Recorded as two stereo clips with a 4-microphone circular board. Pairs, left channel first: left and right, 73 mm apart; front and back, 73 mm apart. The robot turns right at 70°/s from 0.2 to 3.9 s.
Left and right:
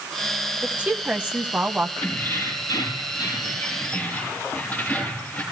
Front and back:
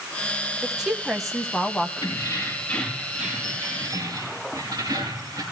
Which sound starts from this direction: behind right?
A woman speaking, at 0.6 s.